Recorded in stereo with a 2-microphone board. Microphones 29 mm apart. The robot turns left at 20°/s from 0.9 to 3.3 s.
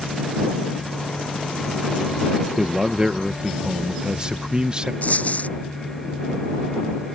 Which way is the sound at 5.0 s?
60° left (ahead or behind).